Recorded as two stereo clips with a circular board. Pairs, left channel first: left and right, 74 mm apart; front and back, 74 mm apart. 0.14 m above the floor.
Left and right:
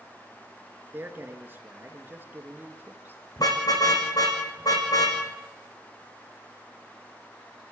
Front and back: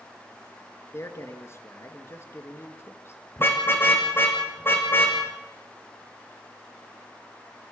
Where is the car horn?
60° left, 3.5 m.